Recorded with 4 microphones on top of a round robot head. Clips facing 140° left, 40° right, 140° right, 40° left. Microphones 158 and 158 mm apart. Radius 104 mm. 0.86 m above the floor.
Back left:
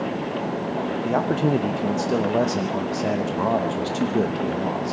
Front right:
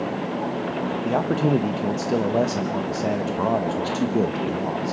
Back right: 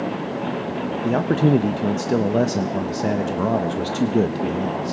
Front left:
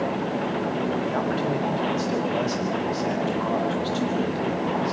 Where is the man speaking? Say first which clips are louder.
Even, back right 6 dB; 130° right, 1.2 m.